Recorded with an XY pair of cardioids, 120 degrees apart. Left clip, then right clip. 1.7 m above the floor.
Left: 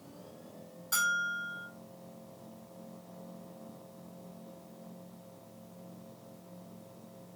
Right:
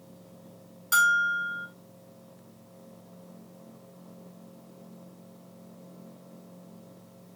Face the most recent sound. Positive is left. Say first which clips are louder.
# right 9 dB
turn(degrees=-50)